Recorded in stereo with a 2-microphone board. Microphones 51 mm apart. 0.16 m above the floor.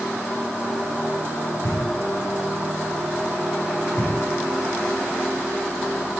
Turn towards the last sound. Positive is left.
turn(degrees=60)  # may be behind; listen again after turning